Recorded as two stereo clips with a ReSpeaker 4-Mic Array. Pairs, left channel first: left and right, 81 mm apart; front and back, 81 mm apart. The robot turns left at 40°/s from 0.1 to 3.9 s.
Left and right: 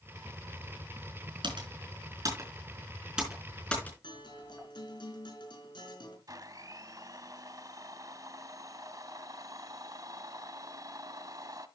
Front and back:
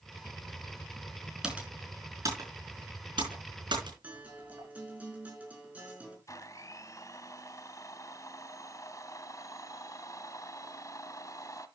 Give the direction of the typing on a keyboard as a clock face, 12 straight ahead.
3 o'clock.